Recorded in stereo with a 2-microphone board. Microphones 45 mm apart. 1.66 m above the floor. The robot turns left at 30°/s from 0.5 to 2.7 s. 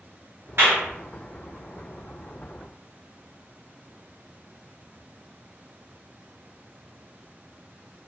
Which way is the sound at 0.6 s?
55° right (ahead or behind).